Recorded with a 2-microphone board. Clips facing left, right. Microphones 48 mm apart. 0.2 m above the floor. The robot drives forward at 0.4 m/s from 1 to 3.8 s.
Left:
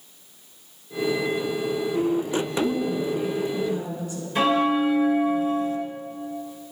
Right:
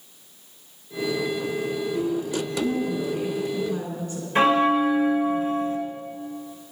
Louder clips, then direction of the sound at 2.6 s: Right 1 dB; 45° right (ahead or behind).